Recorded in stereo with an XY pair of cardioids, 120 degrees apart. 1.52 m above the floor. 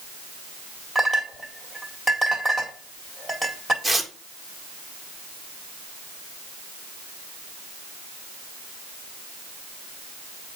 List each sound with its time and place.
0.9 s a clink: 10° left, 1.9 m
3.8 s tearing paper: 5° left, 1.7 m